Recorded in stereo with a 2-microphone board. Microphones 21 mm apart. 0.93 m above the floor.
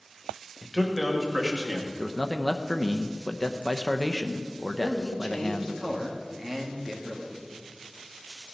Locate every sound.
0.6 s a man speaking: 5° right (ahead or behind), 1.7 m; by 1.9 s 45° right (ahead or behind), 1.9 m
2.0 s a man speaking: 25° left (ahead or behind), 0.6 m
4.8 s a man speaking: 15° right (ahead or behind), 1.8 m